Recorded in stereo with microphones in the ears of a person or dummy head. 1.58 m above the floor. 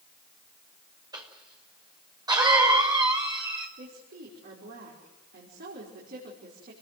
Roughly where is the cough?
Right.